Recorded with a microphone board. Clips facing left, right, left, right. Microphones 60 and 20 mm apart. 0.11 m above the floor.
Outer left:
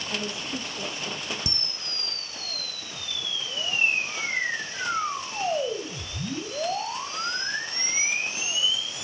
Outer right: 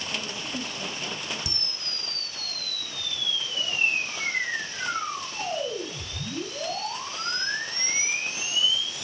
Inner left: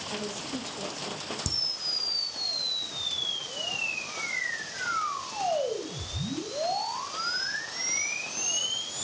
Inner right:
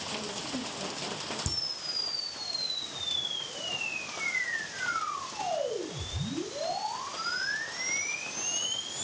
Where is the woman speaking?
60° left (ahead or behind), 4.5 m.